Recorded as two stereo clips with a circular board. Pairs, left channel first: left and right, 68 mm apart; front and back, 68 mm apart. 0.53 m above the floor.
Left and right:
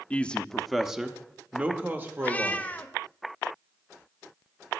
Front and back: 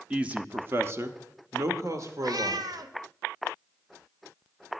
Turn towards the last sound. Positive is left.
turn(degrees=160)